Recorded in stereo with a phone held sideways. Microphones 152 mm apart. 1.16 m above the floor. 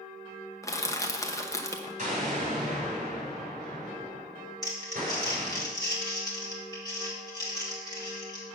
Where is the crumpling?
25° left (ahead or behind), 2.5 m.